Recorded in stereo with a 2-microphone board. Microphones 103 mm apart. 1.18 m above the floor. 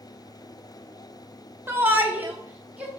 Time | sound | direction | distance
1.7 | a shout | 20° right (ahead or behind) | 0.5 m